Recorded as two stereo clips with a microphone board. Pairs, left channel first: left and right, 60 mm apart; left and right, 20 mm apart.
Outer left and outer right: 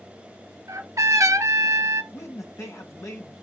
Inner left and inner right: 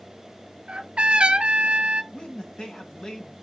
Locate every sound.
0.7 s a trumpet: 65° right (ahead or behind), 1.3 m
2.1 s a man speaking: 55° left (ahead or behind), 2.5 m